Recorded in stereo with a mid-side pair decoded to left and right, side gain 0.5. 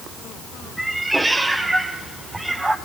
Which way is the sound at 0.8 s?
10° right.